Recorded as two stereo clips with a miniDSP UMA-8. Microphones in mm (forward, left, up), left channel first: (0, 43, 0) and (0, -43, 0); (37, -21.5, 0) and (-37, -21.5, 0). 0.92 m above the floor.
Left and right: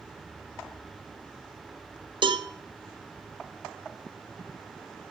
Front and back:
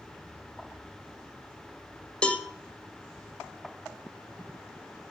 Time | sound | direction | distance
2.2 | a cowbell | 75° right | 0.6 m